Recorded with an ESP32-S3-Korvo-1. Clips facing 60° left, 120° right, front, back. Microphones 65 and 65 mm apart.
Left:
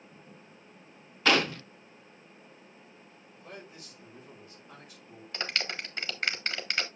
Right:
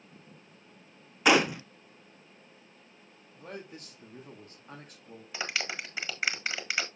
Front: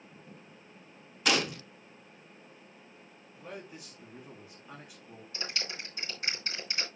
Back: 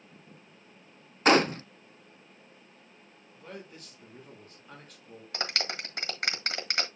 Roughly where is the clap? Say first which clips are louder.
Even, back 5 dB; behind left.